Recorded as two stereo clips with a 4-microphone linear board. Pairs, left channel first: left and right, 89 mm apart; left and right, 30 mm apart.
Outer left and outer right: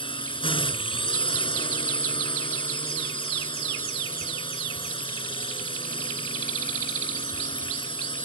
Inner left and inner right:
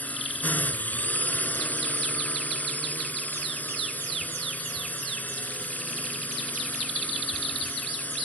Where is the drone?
75° left (ahead or behind).